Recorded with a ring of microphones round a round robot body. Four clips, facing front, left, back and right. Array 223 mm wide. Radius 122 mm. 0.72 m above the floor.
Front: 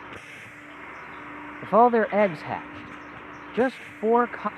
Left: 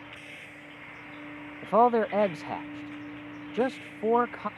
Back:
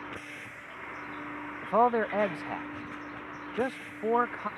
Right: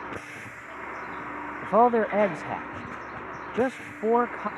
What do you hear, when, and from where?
0.0 s a vehicle: 90° right; by 4.6 s 85° right
1.6 s a man speaking: 20° right